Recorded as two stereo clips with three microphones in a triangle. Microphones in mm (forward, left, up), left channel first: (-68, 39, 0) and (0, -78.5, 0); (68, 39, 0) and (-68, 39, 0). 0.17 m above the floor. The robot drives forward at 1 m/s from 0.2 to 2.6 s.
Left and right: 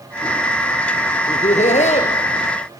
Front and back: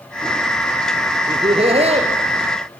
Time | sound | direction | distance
1.3 | laughter | 135° left | 3 m